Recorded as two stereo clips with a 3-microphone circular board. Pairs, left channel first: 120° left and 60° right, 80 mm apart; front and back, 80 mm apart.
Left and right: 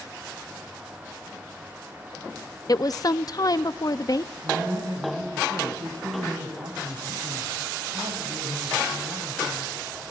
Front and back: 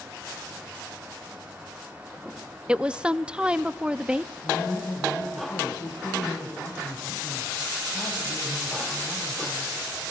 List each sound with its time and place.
2.7 s a woman speaking: 105° left, 0.7 m
4.4 s a man speaking: 45° right, 4 m